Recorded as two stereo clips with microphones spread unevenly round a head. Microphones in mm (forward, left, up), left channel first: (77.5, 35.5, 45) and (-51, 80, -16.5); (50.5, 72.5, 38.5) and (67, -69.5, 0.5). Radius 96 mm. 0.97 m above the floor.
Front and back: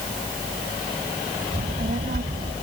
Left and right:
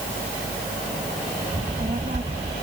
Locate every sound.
1.5 s a child speaking: 145° right